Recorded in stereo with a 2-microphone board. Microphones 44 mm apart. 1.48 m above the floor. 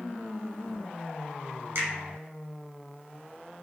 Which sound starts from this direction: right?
A finger snap, at 1.8 s.